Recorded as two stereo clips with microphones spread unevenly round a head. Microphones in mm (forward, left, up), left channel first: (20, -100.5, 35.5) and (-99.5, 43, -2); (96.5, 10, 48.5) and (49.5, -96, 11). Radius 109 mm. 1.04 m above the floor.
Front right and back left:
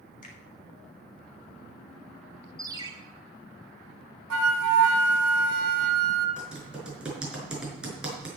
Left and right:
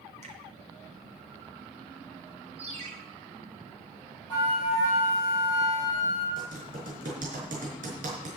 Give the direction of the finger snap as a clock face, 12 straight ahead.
3 o'clock.